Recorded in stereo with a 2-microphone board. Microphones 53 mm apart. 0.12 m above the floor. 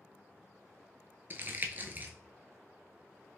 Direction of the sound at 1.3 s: 35° right (ahead or behind).